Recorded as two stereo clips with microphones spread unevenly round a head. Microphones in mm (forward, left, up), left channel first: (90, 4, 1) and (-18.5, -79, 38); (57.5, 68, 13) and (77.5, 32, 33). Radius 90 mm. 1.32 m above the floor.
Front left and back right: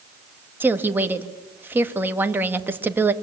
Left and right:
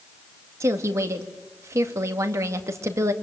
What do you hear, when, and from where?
0.6 s a woman speaking: 65° right, 1.9 m